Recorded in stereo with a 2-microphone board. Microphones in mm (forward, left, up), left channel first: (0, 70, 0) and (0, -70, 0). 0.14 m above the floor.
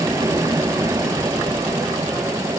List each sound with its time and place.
0.0 s an aircraft: 20° right (ahead or behind)